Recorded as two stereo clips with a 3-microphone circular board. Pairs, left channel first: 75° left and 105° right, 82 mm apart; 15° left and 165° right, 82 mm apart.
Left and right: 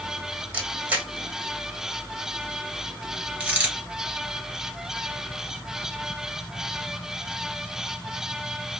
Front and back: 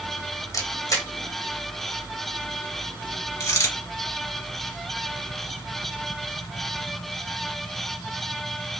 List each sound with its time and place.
0.5 s a camera shutter: 30° right, 1.6 m
3.4 s a dropped coin: 30° right, 1.7 m